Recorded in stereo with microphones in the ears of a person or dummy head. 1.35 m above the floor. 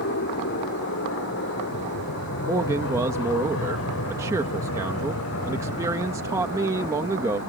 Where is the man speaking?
15° right (ahead or behind).